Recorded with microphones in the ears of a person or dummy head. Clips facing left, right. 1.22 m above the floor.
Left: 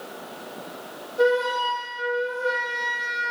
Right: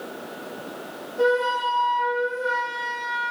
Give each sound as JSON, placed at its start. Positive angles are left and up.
{"t": 1.2, "sound": "a flute", "side_deg": 20, "distance_m": 1.0}